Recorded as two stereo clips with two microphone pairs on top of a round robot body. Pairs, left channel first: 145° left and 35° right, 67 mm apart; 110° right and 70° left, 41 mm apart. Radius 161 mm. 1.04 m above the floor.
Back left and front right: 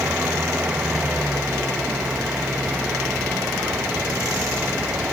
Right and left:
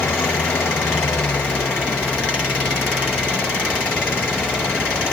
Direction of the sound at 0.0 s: 105° right.